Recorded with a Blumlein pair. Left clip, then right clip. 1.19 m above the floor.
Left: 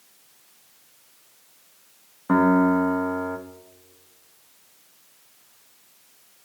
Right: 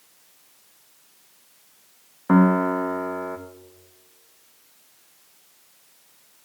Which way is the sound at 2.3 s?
10° right.